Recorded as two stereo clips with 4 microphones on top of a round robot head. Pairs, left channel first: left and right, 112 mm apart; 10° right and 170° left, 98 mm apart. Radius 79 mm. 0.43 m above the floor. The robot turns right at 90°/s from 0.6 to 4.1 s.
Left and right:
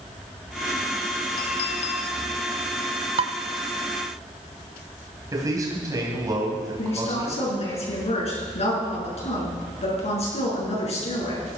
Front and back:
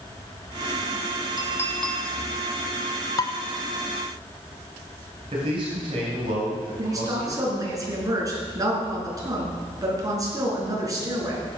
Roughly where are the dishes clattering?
Ahead right.